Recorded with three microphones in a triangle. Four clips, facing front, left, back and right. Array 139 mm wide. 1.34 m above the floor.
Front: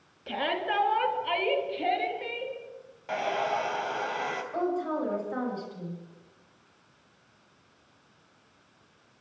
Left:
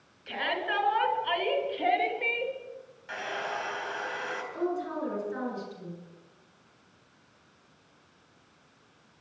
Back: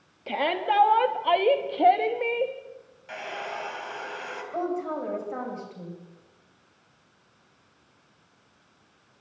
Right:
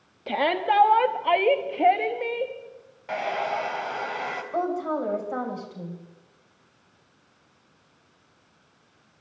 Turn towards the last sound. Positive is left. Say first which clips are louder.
# right 6 dB, back 1 dB
turn(degrees=-100)